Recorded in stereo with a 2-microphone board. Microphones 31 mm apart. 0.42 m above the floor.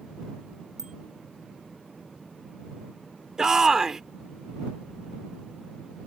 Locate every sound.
0.8 s a bicycle bell: 15° right (ahead or behind)
3.4 s a shout: 20° right (ahead or behind)